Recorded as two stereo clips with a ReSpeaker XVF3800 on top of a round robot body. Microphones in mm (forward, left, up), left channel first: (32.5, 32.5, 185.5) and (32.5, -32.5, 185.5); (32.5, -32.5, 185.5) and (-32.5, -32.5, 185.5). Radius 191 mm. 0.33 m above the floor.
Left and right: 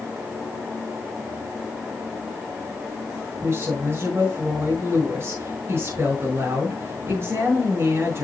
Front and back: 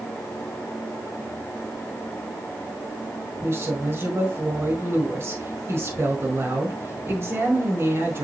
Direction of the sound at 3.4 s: 135° right.